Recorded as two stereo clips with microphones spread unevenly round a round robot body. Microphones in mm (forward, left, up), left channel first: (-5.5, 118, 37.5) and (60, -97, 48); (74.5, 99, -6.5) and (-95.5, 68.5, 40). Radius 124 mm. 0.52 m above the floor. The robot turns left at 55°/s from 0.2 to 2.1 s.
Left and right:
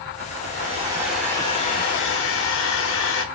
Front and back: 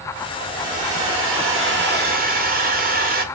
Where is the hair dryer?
120° right, 0.6 m; by 3.2 s 145° left, 0.6 m.